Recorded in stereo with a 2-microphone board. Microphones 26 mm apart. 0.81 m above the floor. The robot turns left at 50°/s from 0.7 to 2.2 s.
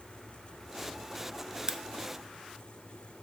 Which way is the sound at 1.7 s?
30° right (ahead or behind).